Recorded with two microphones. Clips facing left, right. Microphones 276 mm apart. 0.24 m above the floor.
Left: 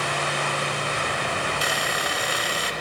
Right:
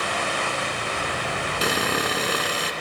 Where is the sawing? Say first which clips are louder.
Right 5 dB; 75° right (ahead or behind), 0.9 m.